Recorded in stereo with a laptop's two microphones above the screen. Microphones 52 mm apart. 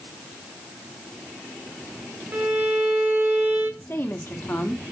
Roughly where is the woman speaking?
Left.